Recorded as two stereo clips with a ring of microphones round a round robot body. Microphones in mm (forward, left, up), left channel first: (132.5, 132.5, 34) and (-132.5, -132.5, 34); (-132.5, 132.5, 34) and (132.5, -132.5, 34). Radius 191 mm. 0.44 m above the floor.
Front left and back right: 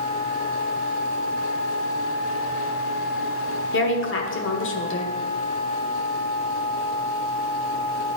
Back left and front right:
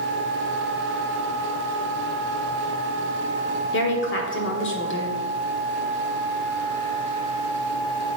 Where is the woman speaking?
90° left, 1.4 m.